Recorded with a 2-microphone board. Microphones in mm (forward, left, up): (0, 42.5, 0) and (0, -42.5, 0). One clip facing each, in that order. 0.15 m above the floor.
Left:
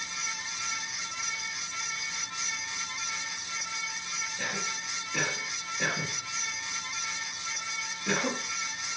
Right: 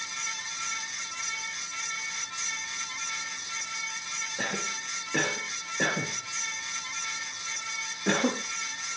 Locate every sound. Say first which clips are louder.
4.4 s a cough: right 3 dB; 55° right (ahead or behind), 3 m